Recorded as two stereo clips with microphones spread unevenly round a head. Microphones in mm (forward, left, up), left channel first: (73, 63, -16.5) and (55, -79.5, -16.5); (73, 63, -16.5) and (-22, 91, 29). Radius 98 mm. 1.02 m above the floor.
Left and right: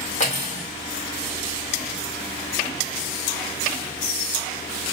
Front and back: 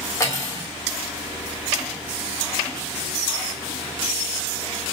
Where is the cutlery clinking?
45° left, 2 m.